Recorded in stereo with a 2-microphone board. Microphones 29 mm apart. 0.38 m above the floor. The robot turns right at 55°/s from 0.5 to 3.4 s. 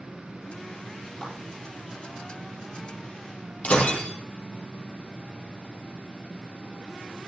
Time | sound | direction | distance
1.2 | a clap | centre (ahead or behind) | 7 m
3.6 | breaking glass | 60° left (ahead or behind) | 3 m